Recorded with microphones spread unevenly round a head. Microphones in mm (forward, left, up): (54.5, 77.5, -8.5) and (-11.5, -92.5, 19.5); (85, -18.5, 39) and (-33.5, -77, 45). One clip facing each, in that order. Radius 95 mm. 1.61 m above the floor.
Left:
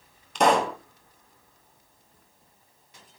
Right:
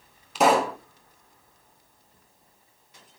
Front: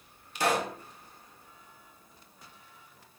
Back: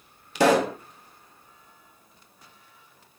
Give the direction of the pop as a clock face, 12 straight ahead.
7 o'clock.